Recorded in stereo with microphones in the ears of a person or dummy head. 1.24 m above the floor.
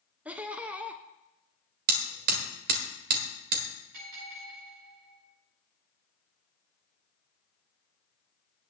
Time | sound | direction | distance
0.2 | laughter | 5° right (ahead or behind) | 0.6 m
1.9 | hammering | 50° right (ahead or behind) | 1.6 m
3.9 | a bell | 70° right (ahead or behind) | 6.5 m